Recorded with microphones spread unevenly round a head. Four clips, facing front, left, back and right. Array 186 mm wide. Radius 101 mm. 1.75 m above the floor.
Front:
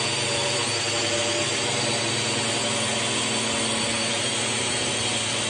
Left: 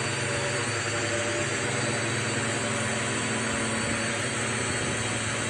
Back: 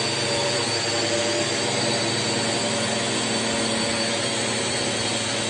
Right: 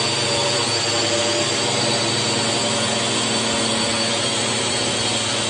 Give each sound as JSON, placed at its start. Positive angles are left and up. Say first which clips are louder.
{"t": 0.0, "sound": "a drone", "louder": "right 8 dB, back 3 dB", "azimuth_deg": -125}